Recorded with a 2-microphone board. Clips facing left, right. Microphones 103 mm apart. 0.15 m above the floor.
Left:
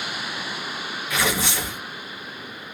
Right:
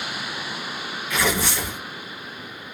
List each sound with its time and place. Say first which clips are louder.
1.1 s tearing paper: right 1 dB; 20° left (ahead or behind), 2.5 m